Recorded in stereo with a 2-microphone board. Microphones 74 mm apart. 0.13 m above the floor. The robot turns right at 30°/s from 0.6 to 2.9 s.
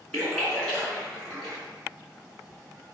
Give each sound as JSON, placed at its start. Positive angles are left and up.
{"t": 0.1, "sound": "a splash", "side_deg": 10, "distance_m": 1.2}